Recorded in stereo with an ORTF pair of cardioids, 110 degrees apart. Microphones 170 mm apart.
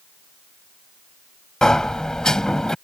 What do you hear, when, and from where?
1.6 s a sliding door: 5° left